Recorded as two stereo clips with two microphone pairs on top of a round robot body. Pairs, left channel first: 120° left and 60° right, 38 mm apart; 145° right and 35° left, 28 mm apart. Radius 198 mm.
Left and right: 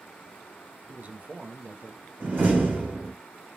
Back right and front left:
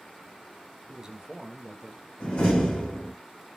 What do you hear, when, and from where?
0.9 s a man speaking: 20° right, 0.6 m
2.2 s a door slam: 95° right, 1.6 m